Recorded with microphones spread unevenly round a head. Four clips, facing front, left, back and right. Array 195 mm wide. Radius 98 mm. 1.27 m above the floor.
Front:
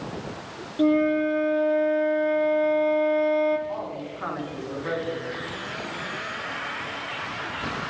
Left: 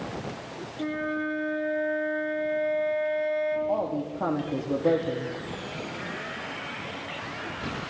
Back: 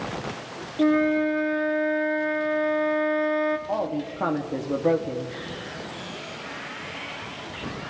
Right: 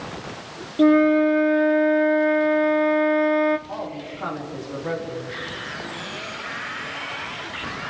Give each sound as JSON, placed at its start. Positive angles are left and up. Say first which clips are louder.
{"t": 0.8, "sound": "a flute", "louder": "right 15 dB, even", "azimuth_deg": -85, "distance_m": 1.8}
{"t": 3.7, "sound": "a woman speaking", "louder": "left 4 dB, back 5 dB", "azimuth_deg": 145, "distance_m": 3.0}